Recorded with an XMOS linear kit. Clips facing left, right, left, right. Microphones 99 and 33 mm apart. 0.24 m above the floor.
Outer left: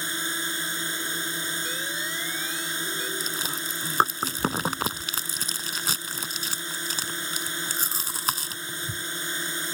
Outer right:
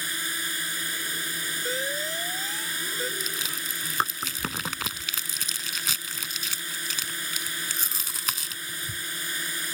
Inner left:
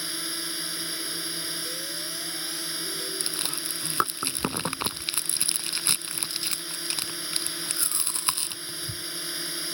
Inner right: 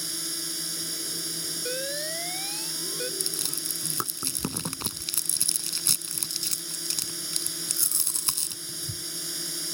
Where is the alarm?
40° right (ahead or behind).